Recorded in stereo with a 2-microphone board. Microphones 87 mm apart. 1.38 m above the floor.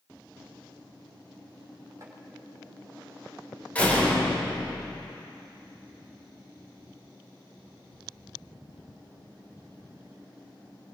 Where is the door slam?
15° left (ahead or behind), 4 m.